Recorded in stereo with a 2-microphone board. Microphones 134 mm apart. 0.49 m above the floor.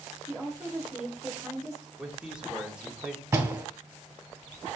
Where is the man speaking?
5° right (ahead or behind), 1.3 m.